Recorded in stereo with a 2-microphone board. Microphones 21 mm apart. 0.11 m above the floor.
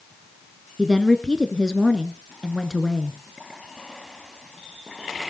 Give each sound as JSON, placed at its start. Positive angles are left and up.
{"t": 0.8, "sound": "a woman speaking", "side_deg": 20, "distance_m": 1.1}